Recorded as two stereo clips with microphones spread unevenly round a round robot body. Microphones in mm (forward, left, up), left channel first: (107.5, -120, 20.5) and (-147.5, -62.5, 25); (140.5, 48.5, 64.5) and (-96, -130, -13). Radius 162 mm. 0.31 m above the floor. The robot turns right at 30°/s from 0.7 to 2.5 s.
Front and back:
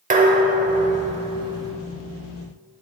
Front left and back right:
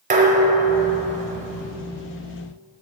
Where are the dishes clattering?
150° right, 0.9 m; by 1.7 s 120° right, 0.9 m.